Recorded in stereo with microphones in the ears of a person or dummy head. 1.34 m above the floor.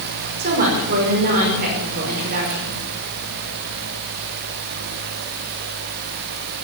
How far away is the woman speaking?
About 5 m.